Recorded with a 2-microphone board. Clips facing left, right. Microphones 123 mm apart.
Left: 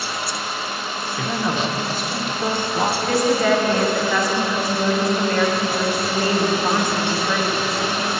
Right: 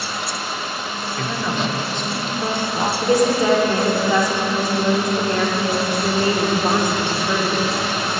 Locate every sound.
1.2 s a woman speaking: 5° left (ahead or behind), 0.7 m
3.0 s a woman speaking: 20° right (ahead or behind), 1.1 m